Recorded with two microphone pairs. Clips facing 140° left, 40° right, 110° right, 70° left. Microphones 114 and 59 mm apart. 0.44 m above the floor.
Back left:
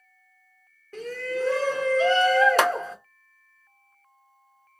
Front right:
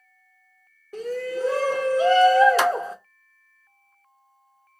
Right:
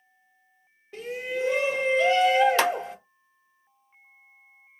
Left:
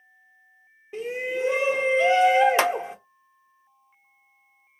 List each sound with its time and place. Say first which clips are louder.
0.9 s a shout: front right 2 dB, left 3 dB; 20° left, 0.7 m
2.6 s a clap: front right 1 dB, left 1 dB; 130° left, 1.4 m